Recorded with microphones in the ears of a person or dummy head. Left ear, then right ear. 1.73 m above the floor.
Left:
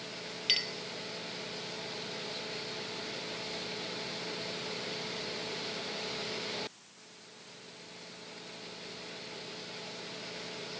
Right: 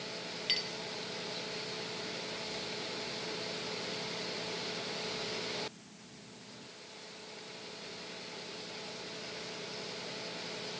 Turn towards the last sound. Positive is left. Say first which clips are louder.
# left 4 dB
turn(degrees=15)  # may be behind; listen again after turning